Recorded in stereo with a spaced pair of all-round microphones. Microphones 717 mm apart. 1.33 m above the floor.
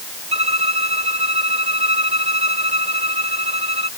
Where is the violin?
65° right (ahead or behind).